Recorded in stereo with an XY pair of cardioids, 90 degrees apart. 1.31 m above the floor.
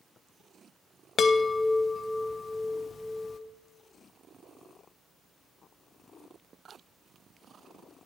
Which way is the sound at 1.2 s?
60° left.